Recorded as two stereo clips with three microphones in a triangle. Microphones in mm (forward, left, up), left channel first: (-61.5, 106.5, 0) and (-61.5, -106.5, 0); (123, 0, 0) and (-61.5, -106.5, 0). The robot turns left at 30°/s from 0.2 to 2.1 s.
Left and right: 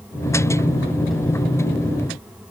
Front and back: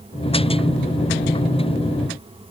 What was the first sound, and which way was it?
Only background noise.